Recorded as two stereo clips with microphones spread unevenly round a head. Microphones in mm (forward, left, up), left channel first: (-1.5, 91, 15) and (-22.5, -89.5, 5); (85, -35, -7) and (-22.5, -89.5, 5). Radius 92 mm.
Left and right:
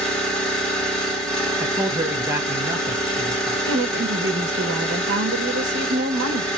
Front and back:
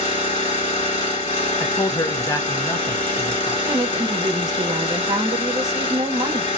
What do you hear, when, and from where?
0.0 s an engine running: straight ahead, 1.8 m
1.6 s a man speaking: 25° right, 0.6 m
3.6 s a woman speaking: 95° right, 0.8 m